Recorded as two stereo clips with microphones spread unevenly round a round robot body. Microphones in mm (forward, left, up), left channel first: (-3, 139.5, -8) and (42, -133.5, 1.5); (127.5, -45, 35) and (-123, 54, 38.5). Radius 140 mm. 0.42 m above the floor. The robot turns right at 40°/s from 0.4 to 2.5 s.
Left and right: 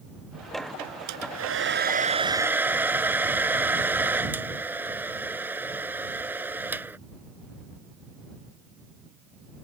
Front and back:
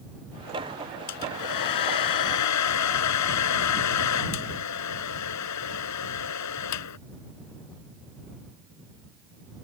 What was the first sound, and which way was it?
A hair dryer, 55° right.